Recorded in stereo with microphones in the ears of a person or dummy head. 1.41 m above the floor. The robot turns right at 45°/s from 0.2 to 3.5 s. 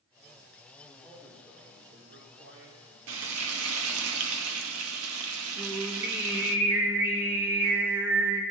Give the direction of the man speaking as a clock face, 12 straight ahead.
7 o'clock.